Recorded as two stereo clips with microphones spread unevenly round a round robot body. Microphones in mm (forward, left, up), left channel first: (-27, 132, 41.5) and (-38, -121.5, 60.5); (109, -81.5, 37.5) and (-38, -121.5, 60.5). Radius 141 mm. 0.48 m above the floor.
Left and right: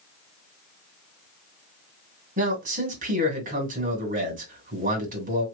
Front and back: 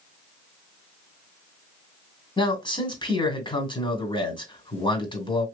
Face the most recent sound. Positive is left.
turn(degrees=-35)